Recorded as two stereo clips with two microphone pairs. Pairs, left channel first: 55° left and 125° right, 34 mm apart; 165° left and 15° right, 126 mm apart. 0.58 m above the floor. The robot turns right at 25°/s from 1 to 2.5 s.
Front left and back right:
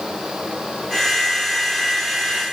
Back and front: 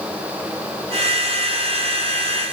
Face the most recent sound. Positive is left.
No sound to turn to.